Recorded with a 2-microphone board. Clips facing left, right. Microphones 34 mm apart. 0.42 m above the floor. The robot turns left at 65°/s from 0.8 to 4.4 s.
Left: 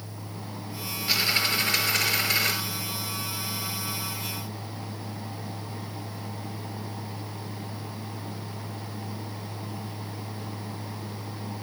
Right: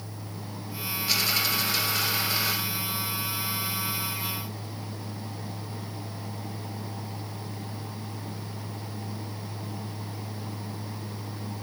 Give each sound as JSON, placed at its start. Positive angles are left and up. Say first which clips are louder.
{"t": 1.1, "sound": "a dropped coin", "louder": "left 2 dB", "azimuth_deg": 165, "distance_m": 1.9}